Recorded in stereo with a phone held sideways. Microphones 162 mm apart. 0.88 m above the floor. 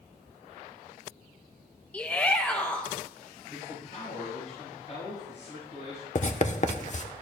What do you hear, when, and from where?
1.9 s a shout: 10° left (ahead or behind), 0.6 m
3.5 s a man speaking: 45° left (ahead or behind), 5.5 m
6.2 s writing: 50° left (ahead or behind), 0.8 m